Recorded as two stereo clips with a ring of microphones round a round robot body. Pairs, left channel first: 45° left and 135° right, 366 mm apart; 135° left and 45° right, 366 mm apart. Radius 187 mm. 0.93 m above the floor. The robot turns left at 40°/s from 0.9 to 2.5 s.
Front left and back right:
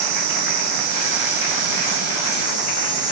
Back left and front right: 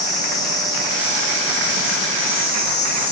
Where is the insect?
150° right, 1.3 m; by 3.1 s 150° left, 1.3 m.